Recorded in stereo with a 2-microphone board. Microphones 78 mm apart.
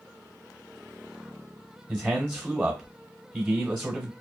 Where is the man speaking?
20° right (ahead or behind), 0.9 m.